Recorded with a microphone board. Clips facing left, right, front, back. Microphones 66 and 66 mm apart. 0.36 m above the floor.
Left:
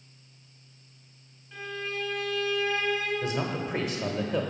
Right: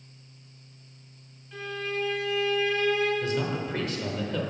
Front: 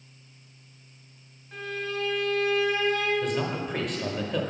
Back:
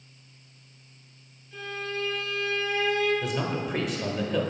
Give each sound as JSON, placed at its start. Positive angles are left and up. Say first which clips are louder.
{"t": 1.5, "sound": "a violin", "louder": "right 2 dB, front 1 dB", "azimuth_deg": 0, "distance_m": 2.5}
{"t": 3.2, "sound": "a man speaking", "louder": "right 1 dB, front 1 dB", "azimuth_deg": 100, "distance_m": 0.9}